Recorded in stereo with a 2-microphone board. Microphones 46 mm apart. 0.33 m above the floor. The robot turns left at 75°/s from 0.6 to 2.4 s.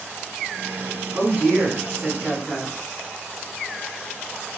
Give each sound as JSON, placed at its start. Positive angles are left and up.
{"t": 1.1, "sound": "a woman speaking", "azimuth_deg": -80, "distance_m": 1.3}